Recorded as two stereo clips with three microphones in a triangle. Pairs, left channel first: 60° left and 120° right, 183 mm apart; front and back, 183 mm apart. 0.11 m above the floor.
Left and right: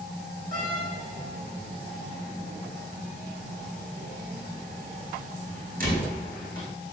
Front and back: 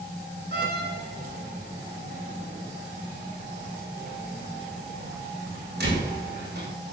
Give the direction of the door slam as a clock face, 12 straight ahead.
5 o'clock.